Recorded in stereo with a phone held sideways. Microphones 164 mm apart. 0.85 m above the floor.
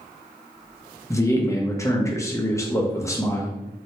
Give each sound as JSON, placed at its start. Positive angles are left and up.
{"t": 1.1, "sound": "a man speaking", "side_deg": 20, "distance_m": 0.6}